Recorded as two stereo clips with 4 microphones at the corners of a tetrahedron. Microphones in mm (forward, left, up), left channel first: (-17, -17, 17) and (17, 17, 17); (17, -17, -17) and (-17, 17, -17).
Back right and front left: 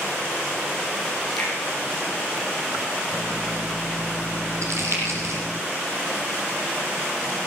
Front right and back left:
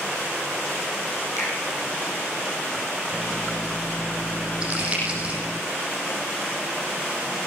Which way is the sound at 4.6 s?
70° left.